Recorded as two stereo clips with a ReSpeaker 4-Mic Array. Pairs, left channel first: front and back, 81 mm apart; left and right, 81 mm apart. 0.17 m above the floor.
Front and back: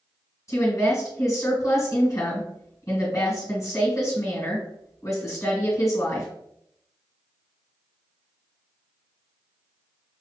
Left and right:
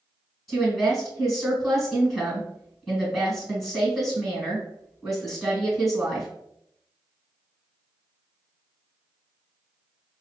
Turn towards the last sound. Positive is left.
turn(degrees=-5)